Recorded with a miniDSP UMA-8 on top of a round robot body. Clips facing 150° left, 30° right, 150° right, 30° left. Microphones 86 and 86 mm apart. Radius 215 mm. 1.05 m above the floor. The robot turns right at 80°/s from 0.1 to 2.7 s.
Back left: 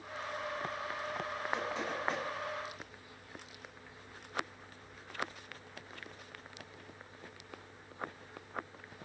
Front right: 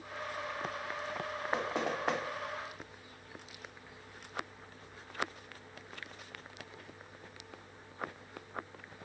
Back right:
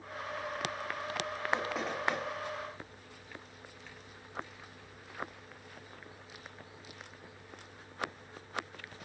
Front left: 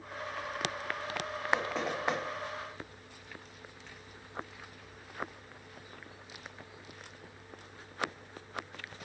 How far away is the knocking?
About 2.5 m.